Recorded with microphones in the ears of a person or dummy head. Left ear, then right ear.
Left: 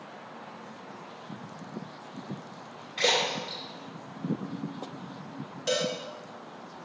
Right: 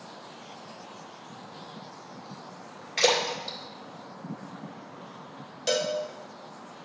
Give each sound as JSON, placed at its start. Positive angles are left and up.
{"t": 3.0, "sound": "a splash", "side_deg": -55, "distance_m": 1.8}
{"t": 5.7, "sound": "a cowbell", "side_deg": -20, "distance_m": 0.7}